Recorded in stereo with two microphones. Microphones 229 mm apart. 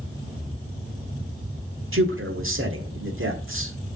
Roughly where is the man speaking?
Right.